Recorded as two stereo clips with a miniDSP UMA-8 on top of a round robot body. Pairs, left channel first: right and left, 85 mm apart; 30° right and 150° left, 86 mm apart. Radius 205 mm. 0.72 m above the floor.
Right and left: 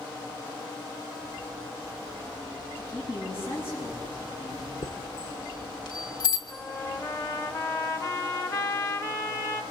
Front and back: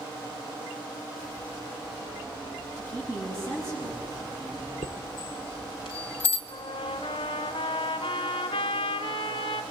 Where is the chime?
55° right, 0.7 m.